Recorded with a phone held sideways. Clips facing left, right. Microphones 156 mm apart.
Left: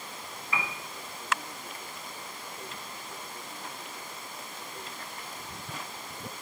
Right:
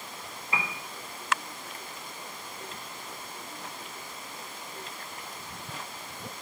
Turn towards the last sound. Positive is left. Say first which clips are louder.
# right 1 dB
turn(degrees=-30)  # may be behind; listen again after turning